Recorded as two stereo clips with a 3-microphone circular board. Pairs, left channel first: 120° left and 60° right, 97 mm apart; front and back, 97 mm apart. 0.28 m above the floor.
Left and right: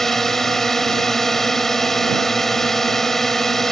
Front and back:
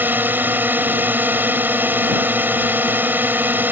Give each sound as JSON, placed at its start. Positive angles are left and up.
{"t": 0.0, "sound": "a drone", "azimuth_deg": -160}